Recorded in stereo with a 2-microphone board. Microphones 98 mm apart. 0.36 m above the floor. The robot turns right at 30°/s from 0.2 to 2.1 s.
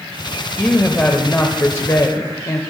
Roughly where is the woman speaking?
Ahead.